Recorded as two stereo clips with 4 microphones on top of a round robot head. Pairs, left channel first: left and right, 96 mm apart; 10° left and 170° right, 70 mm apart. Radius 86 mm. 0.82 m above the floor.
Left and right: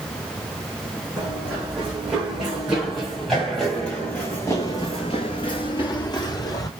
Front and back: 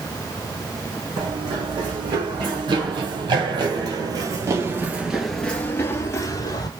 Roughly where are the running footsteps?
Behind.